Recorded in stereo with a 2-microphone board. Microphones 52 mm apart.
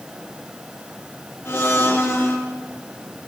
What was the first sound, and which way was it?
A blender, 50° left (ahead or behind).